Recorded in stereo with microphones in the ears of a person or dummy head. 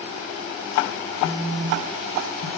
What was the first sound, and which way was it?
A phone buzzing, 65° left (ahead or behind).